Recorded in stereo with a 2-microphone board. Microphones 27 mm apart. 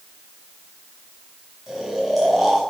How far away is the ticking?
No ticking in this recording.